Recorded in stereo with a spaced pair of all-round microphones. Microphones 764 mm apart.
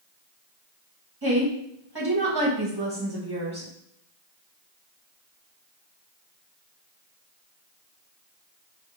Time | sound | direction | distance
1.2 | a woman speaking | 30° right (ahead or behind) | 1.2 m